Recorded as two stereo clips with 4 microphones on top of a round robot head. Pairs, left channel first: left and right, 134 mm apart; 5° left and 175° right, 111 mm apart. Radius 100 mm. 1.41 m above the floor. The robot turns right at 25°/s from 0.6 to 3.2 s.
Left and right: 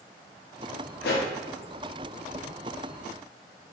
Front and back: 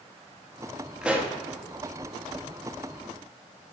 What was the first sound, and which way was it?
A pop, 105° left.